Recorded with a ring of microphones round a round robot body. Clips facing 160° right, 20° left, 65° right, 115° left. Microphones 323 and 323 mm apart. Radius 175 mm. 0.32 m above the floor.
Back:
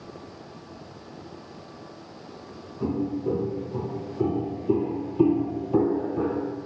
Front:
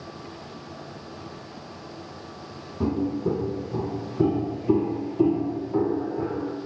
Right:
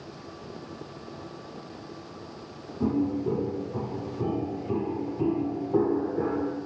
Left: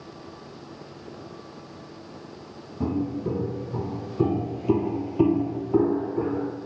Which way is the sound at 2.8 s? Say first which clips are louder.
Front 2 dB, right 1 dB; 60° left.